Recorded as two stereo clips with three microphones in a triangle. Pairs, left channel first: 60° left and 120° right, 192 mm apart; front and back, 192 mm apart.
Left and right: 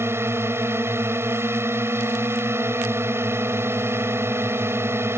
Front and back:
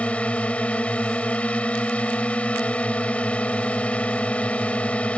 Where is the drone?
70° right.